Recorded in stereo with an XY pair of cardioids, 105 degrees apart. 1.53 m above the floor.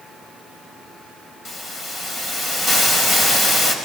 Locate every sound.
1.4 s a hiss: 45° left, 5 m